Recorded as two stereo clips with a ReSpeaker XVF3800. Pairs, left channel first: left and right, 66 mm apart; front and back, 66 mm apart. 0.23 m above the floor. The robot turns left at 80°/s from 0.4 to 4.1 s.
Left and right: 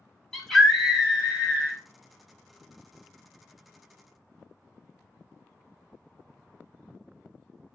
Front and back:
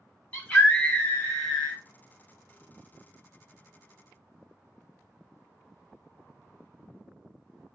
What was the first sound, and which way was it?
A scream, 15° left.